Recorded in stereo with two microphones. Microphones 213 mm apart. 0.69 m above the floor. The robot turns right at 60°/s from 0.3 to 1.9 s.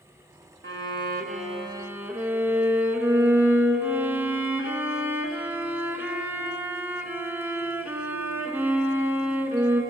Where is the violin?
85° right, 1.1 m; by 9.8 s 10° right, 1.1 m.